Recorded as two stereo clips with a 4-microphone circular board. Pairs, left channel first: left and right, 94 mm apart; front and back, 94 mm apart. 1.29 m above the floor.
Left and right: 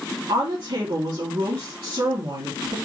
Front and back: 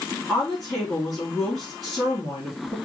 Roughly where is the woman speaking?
Right.